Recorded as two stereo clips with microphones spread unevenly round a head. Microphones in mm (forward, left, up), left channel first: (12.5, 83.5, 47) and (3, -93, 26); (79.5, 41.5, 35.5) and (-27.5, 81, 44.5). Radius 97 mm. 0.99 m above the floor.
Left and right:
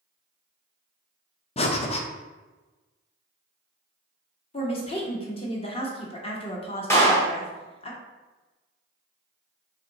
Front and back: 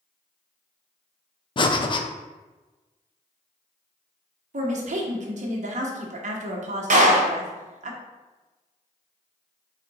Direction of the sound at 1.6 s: 25° left.